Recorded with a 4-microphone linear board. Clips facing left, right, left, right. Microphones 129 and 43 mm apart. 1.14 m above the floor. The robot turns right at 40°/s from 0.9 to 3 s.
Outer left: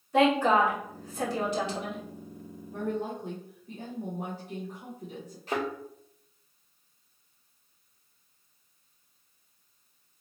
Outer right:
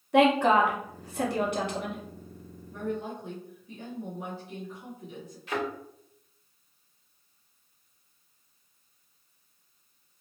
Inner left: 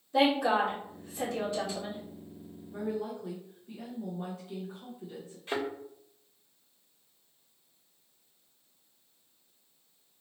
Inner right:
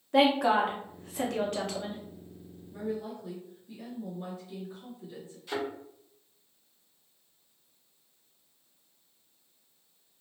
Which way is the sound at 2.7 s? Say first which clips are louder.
Outer left 1 dB, inner left 1 dB; 40° left (ahead or behind).